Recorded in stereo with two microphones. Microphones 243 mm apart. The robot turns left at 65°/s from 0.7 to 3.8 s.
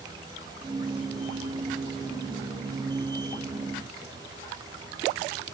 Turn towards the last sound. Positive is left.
No sound to turn to.